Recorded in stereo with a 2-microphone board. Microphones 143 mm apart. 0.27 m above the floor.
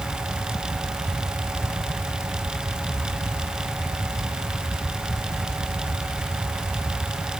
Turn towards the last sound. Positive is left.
No sound to turn to.